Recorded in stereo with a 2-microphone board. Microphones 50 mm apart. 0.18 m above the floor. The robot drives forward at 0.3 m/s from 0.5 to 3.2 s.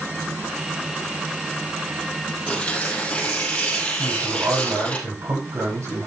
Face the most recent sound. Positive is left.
turn(degrees=-80)